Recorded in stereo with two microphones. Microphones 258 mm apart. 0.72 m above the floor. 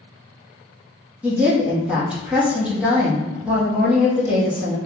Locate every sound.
1.2 s a woman speaking: 5° right (ahead or behind), 1.0 m